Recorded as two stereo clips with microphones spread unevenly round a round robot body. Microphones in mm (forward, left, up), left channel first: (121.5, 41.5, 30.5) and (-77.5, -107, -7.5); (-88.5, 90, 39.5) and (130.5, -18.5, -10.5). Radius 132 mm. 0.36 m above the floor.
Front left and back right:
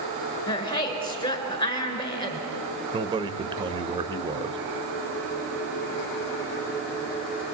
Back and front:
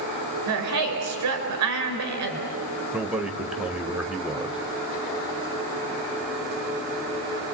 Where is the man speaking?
95° right, 1.2 m.